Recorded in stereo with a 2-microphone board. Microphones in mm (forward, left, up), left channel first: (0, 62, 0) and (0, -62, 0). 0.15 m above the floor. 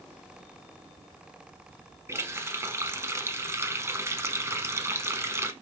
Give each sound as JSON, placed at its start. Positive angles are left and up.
{"t": 2.1, "sound": "a running tap", "side_deg": -20, "distance_m": 0.8}